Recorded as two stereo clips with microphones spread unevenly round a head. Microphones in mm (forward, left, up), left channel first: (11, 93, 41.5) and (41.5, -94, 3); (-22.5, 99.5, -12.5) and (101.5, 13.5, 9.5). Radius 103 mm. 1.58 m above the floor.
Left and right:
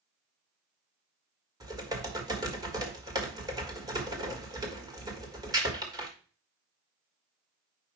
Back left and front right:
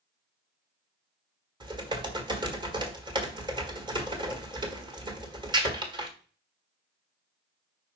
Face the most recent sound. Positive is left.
turn(degrees=-5)